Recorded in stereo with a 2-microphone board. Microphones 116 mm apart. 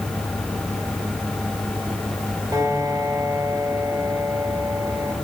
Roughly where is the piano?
Right.